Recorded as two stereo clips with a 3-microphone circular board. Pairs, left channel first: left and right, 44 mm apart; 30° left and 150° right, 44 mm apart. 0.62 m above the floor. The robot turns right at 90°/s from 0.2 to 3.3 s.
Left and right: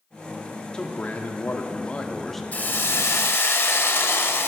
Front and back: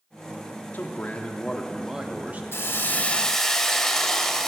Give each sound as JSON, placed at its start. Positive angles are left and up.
{"t": 0.7, "sound": "a man speaking", "azimuth_deg": 30, "distance_m": 1.2}
{"t": 2.5, "sound": "a hiss", "azimuth_deg": 40, "distance_m": 0.9}